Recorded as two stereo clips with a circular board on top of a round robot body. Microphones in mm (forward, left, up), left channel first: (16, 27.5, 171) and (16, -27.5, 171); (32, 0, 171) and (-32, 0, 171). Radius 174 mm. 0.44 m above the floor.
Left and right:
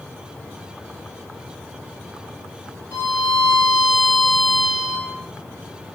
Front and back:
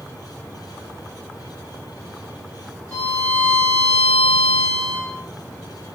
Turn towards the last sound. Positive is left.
turn(degrees=70)